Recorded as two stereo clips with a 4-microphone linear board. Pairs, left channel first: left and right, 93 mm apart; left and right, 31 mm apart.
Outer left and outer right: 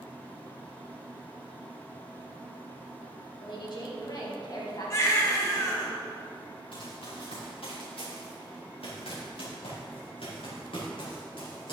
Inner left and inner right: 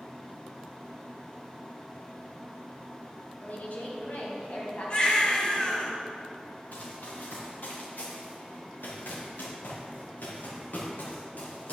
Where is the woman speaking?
60° left (ahead or behind), 3 m; by 5.9 s 35° left (ahead or behind), 3.5 m.